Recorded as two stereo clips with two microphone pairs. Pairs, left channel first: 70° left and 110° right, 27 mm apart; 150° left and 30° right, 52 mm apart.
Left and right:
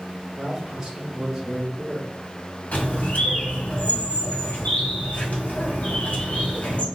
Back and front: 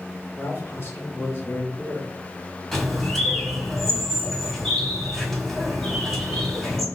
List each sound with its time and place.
0.3 s a man speaking: 165° right, 2 m; by 3.7 s 55° left, 1.4 m
2.7 s a bird: 65° left, 2 m